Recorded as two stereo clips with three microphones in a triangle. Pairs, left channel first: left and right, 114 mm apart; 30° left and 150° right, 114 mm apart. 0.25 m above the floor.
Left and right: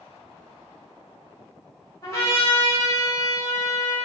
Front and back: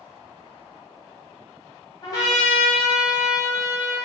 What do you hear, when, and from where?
2.0 s a trumpet: 50° left, 1.4 m